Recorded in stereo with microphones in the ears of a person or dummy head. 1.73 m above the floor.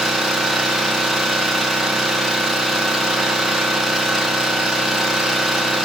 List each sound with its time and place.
0.0 s an engine running: centre (ahead or behind), 1.2 m